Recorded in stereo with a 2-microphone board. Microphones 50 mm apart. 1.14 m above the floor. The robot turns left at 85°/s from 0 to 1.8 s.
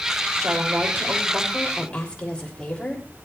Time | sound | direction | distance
0.4 | a woman speaking | 75° right | 6 m